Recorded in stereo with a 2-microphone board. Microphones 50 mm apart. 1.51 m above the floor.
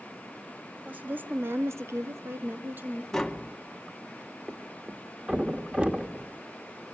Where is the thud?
20° right (ahead or behind), 1.1 m.